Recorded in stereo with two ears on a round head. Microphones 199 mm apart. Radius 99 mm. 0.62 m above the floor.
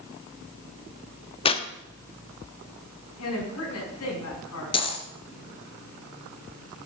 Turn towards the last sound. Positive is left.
turn(degrees=25)  # may be behind; listen again after turning